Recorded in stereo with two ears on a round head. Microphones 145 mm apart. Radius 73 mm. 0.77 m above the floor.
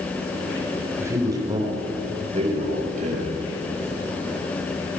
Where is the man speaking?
20° right (ahead or behind), 3.5 m; by 3.3 s 55° right (ahead or behind), 4.5 m.